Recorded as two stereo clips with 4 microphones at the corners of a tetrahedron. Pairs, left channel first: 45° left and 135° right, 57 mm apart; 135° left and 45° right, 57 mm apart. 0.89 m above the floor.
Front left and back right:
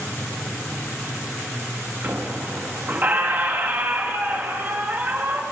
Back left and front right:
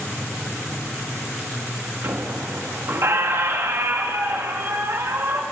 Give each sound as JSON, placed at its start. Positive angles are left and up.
{"t": 2.0, "sound": "a squeak", "azimuth_deg": -80, "distance_m": 0.8}